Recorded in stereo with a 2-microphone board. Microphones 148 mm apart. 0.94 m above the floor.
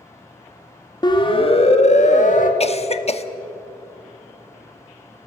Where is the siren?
30° left (ahead or behind), 2 m; by 2.5 s 60° left (ahead or behind), 2 m.